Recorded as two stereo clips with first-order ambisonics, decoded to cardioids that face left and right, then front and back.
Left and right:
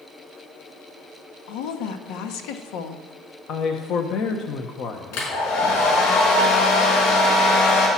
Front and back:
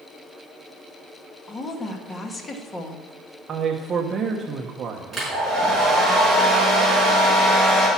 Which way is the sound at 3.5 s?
125° left.